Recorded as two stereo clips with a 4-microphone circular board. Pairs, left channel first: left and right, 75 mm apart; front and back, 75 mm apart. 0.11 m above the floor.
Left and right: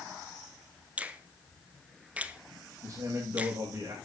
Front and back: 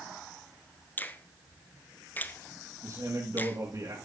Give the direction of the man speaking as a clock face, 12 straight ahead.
5 o'clock.